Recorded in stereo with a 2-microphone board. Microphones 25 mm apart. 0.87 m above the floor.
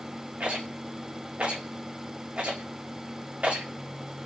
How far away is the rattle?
About 1.4 m.